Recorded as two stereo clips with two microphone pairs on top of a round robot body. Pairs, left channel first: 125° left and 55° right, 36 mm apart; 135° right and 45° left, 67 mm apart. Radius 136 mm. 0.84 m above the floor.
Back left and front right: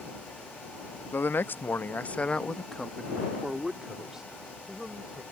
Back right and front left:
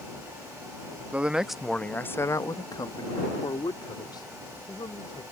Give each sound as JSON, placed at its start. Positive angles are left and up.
{"t": 1.1, "sound": "a man speaking", "azimuth_deg": 115}